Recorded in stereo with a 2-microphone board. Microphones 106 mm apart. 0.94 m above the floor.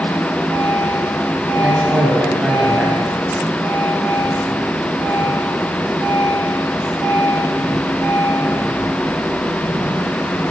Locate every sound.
1.6 s a man speaking: 10° right (ahead or behind), 5 m